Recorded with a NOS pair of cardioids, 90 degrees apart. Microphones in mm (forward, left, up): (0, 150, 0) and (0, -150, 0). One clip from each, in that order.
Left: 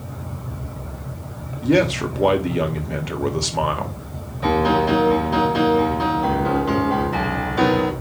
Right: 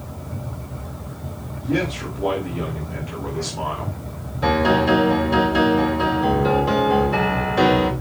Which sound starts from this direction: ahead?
A piano, at 4.4 s.